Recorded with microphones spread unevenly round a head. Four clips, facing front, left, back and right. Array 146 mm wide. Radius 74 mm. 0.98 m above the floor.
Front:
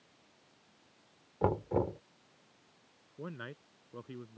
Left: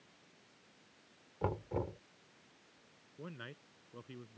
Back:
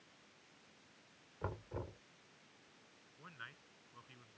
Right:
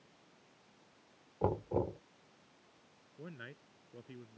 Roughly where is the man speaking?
Ahead.